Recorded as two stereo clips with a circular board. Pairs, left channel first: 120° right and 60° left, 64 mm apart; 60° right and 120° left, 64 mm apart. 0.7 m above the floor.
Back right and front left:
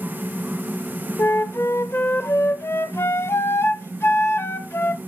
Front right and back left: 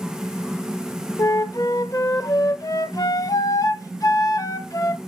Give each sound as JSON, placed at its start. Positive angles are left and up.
{"t": 1.2, "sound": "a flute", "azimuth_deg": -75, "distance_m": 0.7}